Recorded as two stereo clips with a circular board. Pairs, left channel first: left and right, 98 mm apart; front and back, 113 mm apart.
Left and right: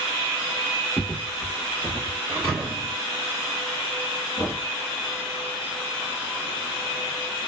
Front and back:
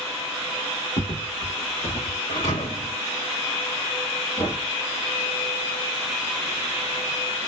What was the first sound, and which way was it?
Footsteps, 20° left.